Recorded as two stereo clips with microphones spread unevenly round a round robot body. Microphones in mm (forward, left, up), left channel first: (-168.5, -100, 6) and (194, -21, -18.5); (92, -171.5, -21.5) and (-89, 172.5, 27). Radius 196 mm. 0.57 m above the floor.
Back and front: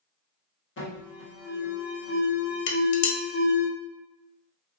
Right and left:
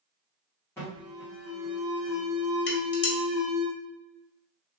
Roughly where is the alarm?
Behind right.